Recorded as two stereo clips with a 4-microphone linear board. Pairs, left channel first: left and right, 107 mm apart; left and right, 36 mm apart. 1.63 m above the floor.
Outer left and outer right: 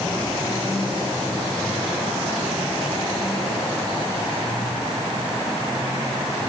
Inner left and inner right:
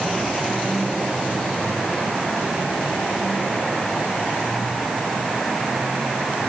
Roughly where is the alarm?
No alarm in this recording.